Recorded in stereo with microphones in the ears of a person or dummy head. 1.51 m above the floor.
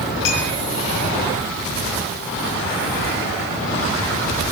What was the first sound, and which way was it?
A clink, 70° left (ahead or behind).